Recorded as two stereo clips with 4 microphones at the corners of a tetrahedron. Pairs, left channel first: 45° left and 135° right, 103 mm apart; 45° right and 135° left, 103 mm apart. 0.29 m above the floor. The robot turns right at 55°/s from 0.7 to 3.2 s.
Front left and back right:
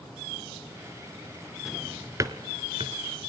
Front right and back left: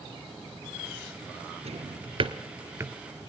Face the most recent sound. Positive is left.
turn(degrees=-140)